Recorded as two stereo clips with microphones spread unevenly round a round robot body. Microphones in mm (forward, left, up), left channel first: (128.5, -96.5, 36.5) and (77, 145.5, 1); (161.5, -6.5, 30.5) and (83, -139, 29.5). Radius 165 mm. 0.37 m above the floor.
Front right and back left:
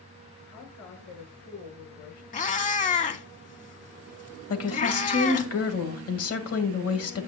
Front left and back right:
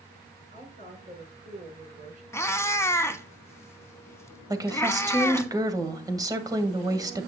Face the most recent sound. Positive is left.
turn(degrees=-55)